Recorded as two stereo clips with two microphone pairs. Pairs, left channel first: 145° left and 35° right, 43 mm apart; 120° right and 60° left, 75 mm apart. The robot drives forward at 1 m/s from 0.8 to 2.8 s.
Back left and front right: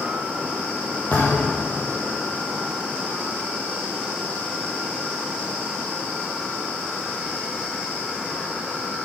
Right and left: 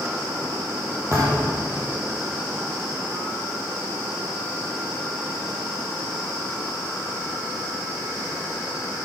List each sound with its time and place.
1.1 s a thud: 110° left, 5 m; by 1.7 s 120° left, 5.5 m